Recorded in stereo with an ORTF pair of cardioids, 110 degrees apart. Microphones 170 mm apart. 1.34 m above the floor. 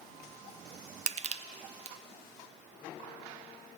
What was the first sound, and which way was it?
Crushing, 40° right.